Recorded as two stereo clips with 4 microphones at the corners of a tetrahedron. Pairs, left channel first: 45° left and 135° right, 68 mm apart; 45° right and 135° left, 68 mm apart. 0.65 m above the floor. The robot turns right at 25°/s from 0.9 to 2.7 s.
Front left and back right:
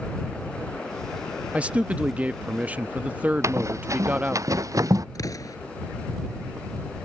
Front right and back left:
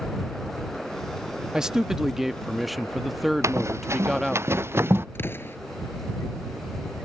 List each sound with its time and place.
1.5 s a man speaking: 165° right; by 4.4 s 135° right
3.4 s running footsteps: straight behind; by 5.0 s 170° right
5.2 s an explosion: 15° left